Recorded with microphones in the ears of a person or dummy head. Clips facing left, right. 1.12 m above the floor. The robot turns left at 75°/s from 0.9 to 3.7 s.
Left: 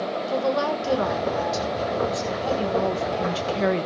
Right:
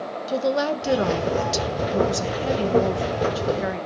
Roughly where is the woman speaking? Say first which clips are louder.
Right 2 dB; ahead right.